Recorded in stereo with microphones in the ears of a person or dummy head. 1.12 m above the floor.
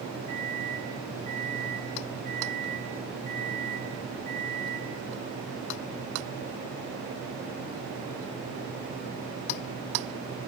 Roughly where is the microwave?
Right.